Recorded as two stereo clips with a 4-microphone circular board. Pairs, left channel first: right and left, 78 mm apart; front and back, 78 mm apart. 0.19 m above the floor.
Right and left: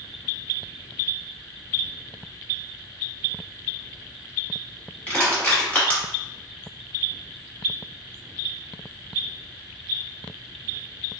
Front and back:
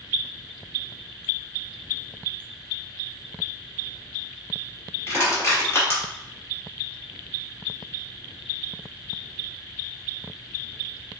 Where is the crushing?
30° right, 1.1 m.